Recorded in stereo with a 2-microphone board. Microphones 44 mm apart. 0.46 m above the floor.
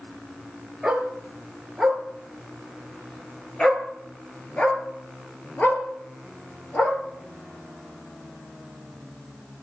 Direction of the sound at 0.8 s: 5° right (ahead or behind).